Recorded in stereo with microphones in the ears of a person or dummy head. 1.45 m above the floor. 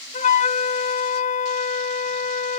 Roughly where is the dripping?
No dripping in this recording.